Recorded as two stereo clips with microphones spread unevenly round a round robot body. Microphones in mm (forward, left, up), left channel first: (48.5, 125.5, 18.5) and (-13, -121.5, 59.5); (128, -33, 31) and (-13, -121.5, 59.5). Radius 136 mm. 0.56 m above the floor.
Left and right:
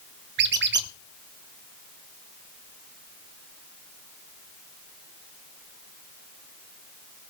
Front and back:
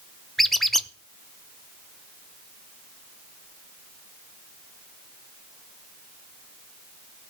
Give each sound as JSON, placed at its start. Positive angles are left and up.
{"t": 0.4, "sound": "a squeak", "azimuth_deg": -55, "distance_m": 0.8}